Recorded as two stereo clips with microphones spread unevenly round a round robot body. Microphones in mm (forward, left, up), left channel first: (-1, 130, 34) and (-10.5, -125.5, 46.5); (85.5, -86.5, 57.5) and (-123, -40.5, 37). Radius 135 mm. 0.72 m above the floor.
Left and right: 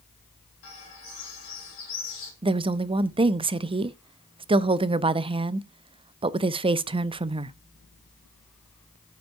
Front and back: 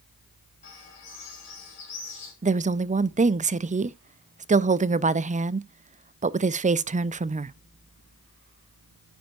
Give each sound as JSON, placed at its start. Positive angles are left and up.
{"t": 0.6, "sound": "a bird", "azimuth_deg": 50, "distance_m": 4.0}
{"t": 2.4, "sound": "a woman speaking", "azimuth_deg": -160, "distance_m": 0.5}